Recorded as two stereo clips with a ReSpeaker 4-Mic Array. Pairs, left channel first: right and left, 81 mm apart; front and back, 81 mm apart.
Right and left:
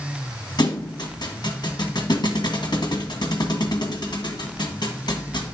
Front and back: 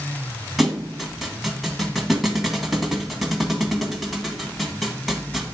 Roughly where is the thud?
Right.